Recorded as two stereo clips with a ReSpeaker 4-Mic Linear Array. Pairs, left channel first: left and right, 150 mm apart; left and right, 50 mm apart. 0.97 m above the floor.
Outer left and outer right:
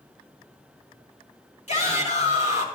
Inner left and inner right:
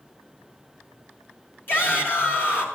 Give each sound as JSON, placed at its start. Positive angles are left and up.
{"t": 1.7, "sound": "a shout", "side_deg": 50, "distance_m": 3.0}